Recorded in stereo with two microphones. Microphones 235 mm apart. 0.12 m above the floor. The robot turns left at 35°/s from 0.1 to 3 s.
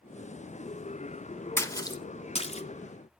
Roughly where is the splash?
Centre.